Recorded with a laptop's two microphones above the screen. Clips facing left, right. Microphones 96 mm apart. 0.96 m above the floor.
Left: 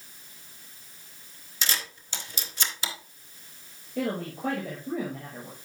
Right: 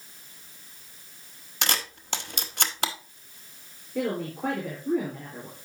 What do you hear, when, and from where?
1.6 s a camera shutter: 60° right (ahead or behind), 0.9 m
4.0 s a woman speaking: 75° right (ahead or behind), 3.5 m